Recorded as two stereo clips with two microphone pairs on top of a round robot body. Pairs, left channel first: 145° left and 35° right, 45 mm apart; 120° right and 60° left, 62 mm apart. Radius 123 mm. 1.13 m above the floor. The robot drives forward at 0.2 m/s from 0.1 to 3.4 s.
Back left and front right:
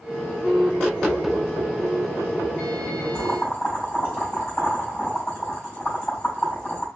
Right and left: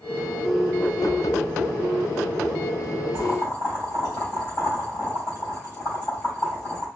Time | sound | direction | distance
3.1 | boiling | 170° right | 3.5 m